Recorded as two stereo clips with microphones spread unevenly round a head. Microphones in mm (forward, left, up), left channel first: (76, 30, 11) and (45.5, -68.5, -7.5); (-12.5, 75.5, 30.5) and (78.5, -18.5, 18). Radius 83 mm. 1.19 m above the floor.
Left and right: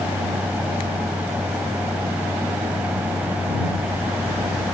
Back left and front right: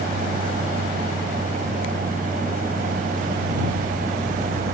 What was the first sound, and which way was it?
A fan, 30° right.